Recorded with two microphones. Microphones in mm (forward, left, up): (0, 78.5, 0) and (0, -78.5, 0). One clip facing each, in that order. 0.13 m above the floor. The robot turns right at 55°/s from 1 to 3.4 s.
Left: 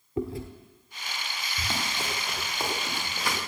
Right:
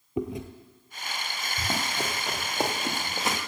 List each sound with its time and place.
0.2 s chewing: 20° right (ahead or behind), 1.3 m
1.6 s running footsteps: 35° right (ahead or behind), 4 m; by 3.4 s 15° right (ahead or behind), 3 m